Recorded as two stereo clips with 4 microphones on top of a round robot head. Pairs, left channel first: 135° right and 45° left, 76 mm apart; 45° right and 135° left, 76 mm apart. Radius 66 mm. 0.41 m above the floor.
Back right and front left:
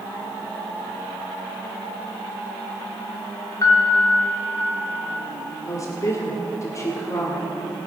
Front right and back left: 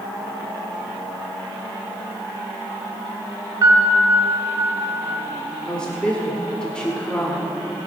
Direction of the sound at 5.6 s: 120° right.